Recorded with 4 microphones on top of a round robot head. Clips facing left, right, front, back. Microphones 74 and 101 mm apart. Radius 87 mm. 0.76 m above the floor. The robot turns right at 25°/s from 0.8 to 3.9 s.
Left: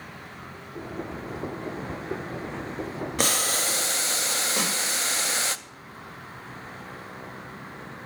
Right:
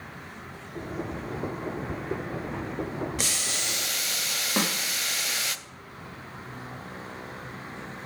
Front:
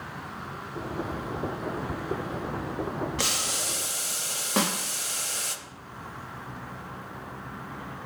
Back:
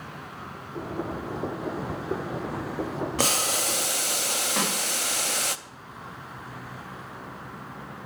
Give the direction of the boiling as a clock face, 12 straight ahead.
8 o'clock.